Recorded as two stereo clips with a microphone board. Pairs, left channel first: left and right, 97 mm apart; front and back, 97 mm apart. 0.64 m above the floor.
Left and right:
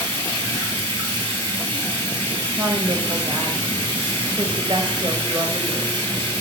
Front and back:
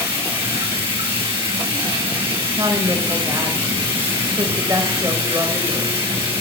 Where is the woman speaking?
120° right, 3 m.